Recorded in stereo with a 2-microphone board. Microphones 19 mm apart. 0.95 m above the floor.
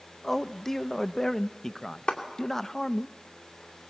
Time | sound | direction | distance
0.2 | a man speaking | 20° left (ahead or behind) | 0.6 m
2.1 | a clap | 75° left (ahead or behind) | 2.5 m